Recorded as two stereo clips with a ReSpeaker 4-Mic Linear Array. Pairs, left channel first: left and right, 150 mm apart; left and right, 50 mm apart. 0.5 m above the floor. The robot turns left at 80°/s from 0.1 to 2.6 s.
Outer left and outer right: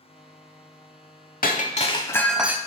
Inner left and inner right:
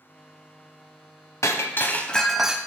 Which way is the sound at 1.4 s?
75° left.